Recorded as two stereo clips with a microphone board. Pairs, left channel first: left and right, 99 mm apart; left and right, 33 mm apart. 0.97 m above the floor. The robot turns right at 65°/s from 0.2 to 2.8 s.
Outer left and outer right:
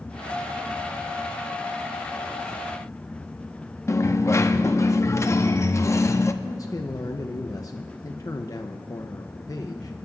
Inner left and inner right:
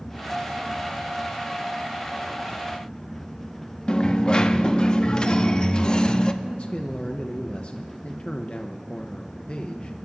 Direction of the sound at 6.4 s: 35° left (ahead or behind).